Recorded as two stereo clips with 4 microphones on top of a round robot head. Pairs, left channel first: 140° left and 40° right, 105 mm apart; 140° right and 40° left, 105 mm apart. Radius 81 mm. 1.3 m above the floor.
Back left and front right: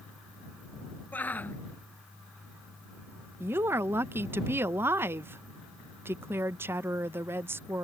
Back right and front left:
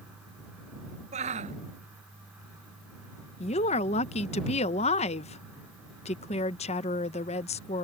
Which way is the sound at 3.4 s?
110° right.